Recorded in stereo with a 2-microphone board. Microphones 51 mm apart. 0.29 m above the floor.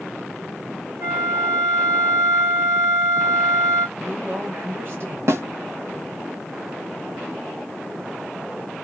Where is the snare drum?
60° right (ahead or behind), 0.6 m.